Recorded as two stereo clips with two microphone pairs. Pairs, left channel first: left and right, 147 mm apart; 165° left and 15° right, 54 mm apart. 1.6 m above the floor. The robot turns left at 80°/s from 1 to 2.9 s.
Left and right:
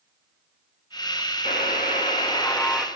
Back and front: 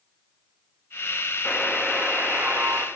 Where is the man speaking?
No man speaking in this recording.